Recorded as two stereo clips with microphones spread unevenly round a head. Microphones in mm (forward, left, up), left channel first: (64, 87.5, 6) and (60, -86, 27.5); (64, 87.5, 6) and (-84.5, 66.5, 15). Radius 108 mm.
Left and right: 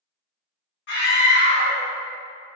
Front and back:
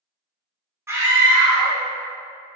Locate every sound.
0.9 s a scream: 115° left, 1.3 m